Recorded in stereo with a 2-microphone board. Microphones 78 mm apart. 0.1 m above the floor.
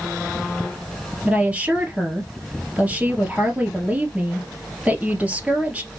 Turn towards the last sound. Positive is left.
turn(degrees=-20)  # may be behind; listen again after turning